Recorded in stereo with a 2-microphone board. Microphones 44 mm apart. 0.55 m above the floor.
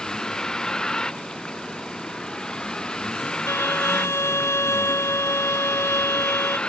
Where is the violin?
80° left.